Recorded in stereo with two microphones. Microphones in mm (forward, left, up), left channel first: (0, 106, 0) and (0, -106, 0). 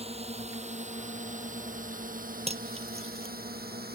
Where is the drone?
30° right (ahead or behind); by 4.0 s 45° right (ahead or behind).